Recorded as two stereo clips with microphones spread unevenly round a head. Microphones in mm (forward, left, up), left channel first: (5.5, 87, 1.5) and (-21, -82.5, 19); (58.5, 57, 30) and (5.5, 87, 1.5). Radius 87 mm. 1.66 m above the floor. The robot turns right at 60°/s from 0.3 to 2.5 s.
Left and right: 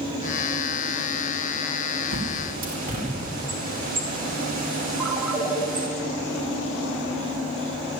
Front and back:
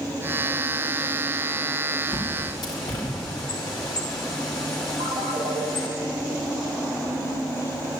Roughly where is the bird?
Right.